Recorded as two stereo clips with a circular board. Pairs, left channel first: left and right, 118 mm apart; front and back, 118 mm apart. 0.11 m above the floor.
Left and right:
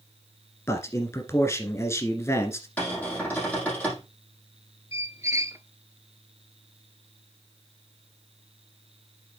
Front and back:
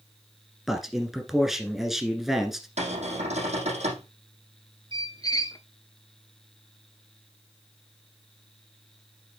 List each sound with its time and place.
0.7 s a man speaking: 95° left, 1.6 m
2.8 s a cupboard door: 165° left, 5 m
4.9 s a squeak: 40° right, 0.6 m